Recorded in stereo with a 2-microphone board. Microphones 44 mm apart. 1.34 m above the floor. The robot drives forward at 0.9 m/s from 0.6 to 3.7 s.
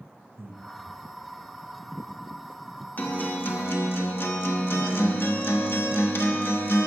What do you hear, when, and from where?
0.4 s breathing: 60° right (ahead or behind), 0.9 m; by 0.6 s 65° right (ahead or behind), 0.9 m
3.0 s a guitar: 45° left (ahead or behind), 1.3 m; by 6.9 s 60° left (ahead or behind), 1.0 m